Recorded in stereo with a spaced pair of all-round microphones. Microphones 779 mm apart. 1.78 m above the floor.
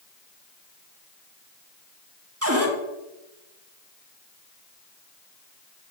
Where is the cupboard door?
20° right (ahead or behind), 1.2 m.